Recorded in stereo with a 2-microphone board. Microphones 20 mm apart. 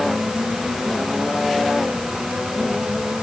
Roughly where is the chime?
I don't hear a chime.